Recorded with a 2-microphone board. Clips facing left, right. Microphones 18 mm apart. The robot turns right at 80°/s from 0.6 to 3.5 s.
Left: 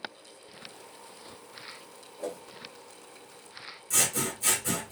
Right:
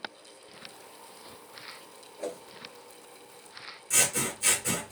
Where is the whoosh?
40° right (ahead or behind), 1.1 m; by 2.4 s 50° right (ahead or behind), 1.1 m.